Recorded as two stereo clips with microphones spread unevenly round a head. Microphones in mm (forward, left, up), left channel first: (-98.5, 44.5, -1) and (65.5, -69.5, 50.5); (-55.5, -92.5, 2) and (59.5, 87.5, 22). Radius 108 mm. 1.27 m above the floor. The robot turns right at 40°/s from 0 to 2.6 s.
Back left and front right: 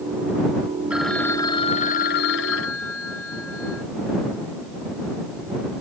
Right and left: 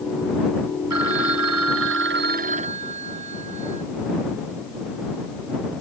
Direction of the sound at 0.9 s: 50° left.